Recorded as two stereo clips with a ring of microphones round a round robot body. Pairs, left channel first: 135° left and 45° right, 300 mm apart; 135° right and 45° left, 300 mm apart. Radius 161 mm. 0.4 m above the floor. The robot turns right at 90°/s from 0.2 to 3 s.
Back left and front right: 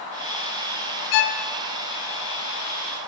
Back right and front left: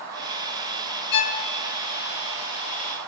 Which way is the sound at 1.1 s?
165° left.